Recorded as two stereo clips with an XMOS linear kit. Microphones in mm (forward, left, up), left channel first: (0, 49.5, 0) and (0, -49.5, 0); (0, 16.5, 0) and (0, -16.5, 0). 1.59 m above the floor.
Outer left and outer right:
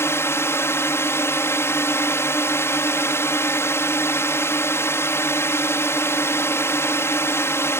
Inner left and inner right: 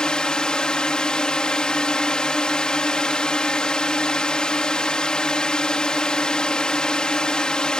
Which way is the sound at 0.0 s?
25° left (ahead or behind).